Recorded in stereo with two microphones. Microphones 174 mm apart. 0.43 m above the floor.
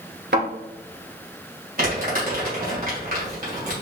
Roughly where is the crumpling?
Right.